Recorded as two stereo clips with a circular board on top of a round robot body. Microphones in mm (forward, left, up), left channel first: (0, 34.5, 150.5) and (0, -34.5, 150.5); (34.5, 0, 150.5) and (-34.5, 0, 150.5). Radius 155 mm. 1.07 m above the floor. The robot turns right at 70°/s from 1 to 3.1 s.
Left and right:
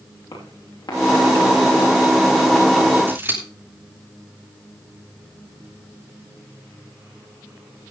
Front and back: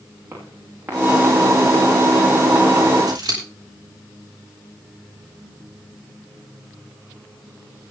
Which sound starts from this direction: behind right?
Scissors, at 3.1 s.